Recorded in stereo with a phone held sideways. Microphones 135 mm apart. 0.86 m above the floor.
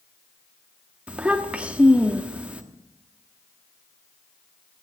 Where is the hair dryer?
No hair dryer in this recording.